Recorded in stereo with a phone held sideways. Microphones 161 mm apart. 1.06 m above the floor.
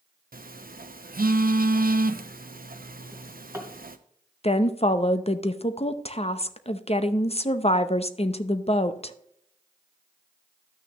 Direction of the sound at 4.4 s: 45° left (ahead or behind).